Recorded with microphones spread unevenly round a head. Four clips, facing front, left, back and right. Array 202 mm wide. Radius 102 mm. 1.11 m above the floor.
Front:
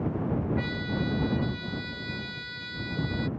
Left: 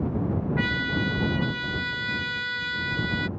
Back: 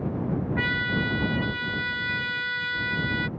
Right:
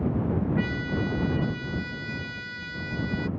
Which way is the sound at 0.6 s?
155° left.